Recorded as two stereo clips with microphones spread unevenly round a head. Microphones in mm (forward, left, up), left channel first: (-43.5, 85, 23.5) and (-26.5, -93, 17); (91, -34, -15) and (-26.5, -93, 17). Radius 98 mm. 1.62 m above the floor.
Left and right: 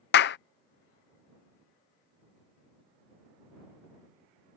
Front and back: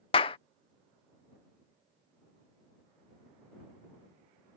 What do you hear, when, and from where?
0.1 s a clap: 95° left